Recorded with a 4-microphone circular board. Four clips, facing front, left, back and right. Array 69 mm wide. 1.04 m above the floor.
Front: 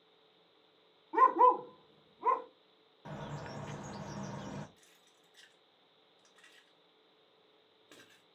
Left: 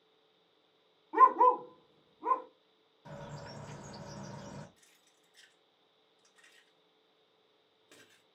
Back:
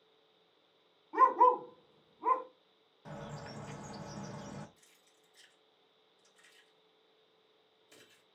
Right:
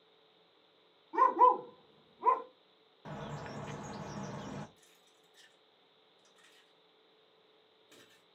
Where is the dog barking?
70° left, 0.7 m; by 2.5 s 70° right, 1.3 m.